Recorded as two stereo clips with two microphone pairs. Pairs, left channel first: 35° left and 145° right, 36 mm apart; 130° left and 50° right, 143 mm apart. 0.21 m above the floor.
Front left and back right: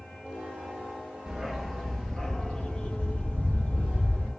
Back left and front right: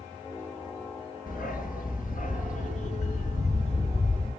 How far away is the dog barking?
About 1.2 m.